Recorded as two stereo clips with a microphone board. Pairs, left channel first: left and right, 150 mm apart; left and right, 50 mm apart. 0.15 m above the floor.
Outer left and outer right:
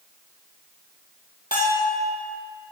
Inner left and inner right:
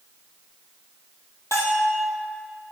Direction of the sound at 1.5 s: 75° left (ahead or behind).